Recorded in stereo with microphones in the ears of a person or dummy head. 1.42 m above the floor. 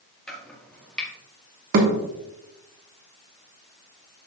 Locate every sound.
0.3 s chopping: centre (ahead or behind), 1.9 m
1.7 s a thud: 55° right (ahead or behind), 1.5 m